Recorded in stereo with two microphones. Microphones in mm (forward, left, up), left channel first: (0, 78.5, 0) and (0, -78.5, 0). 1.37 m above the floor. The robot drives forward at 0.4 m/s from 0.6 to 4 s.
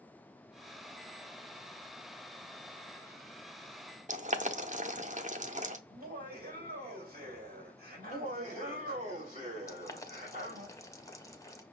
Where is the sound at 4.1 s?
50° right (ahead or behind), 0.7 m.